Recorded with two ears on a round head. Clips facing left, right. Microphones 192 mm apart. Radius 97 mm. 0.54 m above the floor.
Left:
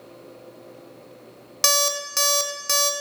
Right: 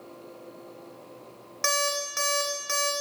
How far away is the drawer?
No drawer in this recording.